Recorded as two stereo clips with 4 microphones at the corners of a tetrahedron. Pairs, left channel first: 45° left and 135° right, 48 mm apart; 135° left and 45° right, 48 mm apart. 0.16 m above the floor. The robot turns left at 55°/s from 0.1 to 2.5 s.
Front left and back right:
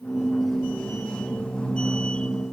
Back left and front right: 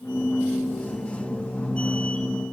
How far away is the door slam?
I don't hear a door slam.